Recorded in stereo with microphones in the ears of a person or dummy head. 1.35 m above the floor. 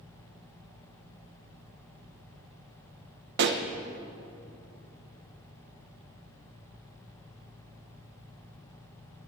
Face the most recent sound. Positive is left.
turn(degrees=-60)  # may be behind; listen again after turning